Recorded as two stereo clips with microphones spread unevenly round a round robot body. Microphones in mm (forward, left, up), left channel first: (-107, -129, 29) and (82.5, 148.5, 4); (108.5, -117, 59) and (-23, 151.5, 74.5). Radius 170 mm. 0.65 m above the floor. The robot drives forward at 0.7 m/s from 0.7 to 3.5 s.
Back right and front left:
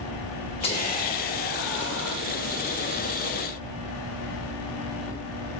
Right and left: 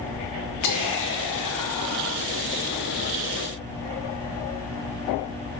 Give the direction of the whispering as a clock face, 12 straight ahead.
2 o'clock.